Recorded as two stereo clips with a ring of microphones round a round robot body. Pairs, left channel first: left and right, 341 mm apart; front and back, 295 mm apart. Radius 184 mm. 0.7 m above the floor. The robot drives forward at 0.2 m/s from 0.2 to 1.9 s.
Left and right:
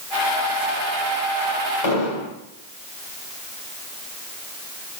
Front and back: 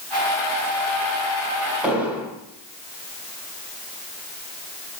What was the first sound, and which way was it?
An explosion, 95° left.